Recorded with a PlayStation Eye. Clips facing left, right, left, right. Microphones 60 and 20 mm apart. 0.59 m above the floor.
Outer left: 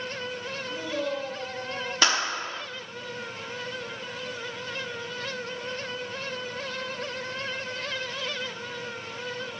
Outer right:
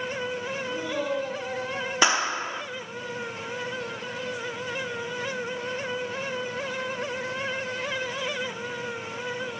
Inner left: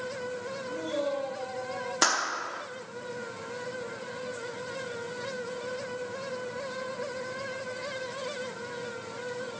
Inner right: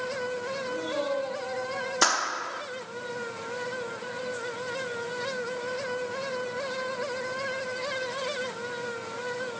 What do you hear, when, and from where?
0.7 s a man speaking: 80° right, 6.5 m
2.0 s a clap: 15° right (ahead or behind), 0.7 m